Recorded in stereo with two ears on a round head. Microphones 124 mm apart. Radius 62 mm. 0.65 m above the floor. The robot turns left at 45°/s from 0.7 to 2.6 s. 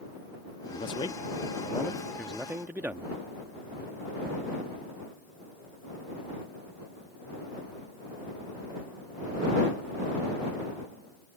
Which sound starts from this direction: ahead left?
A man speaking, at 0.7 s.